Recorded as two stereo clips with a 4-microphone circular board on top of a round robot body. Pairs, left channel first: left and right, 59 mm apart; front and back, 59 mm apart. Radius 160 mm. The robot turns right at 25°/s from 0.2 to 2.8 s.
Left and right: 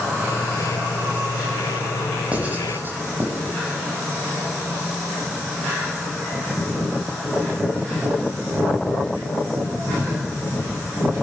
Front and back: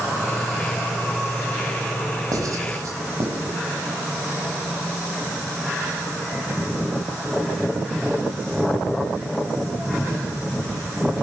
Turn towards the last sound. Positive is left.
turn(degrees=-145)